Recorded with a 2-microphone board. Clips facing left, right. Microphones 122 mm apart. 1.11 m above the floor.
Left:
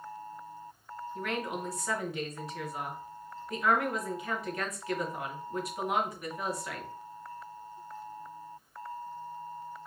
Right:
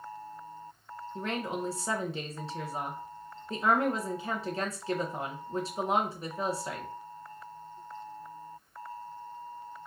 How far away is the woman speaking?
About 0.8 m.